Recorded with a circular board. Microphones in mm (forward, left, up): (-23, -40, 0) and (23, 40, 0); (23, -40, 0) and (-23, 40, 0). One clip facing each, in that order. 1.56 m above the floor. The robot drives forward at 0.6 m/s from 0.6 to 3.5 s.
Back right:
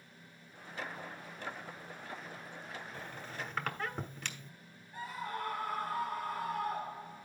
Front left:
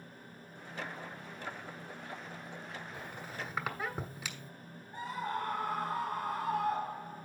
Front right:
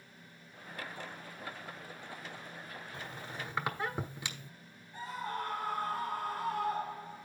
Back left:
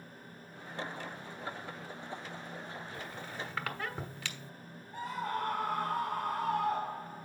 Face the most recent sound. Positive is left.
turn(degrees=125)